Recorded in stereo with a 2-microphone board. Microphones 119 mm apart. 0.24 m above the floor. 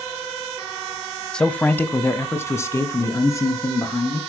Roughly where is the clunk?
No clunk in this recording.